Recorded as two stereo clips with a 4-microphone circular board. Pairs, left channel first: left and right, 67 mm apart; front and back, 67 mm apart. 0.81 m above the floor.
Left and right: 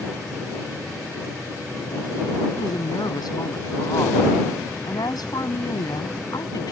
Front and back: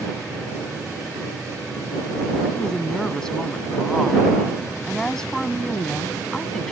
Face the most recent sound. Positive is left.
turn(degrees=80)